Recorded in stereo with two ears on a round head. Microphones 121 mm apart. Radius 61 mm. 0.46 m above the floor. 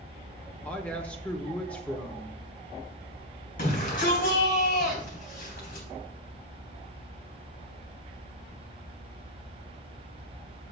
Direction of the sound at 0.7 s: 10° left (ahead or behind).